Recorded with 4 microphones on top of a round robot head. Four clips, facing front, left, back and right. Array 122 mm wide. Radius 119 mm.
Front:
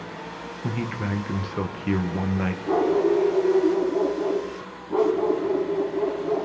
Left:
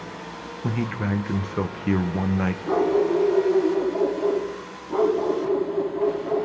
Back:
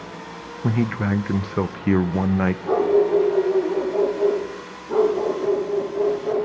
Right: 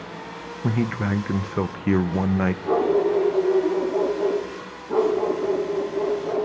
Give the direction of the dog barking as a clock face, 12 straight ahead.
5 o'clock.